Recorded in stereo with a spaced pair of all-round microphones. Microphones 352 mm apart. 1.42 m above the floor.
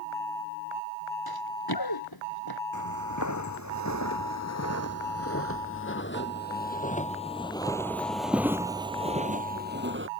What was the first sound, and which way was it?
Running footsteps, 85° left.